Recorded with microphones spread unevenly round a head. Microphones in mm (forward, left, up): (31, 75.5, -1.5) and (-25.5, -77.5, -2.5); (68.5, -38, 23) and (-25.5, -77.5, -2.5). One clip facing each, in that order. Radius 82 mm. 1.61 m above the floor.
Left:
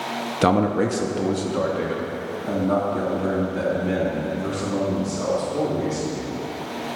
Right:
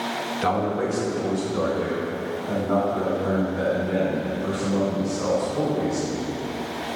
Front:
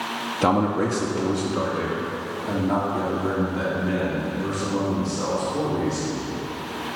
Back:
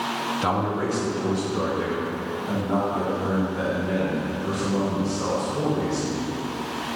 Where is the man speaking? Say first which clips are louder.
Left 5 dB, front 5 dB; 70° left, 0.6 m; by 6.2 s 80° left, 4.5 m.